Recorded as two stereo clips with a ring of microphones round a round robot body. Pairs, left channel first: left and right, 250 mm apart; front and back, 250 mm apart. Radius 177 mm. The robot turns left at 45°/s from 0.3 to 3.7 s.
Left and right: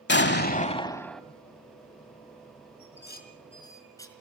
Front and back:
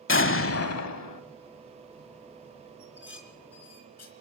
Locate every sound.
0.1 s an explosion: 40° left, 1.1 m; by 1.2 s straight ahead, 1.1 m
2.8 s dishes clattering: 55° left, 3.5 m; by 4.1 s 15° left, 3.5 m